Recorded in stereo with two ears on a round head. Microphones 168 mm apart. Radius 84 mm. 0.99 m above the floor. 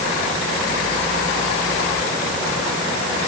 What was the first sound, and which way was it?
Only background noise.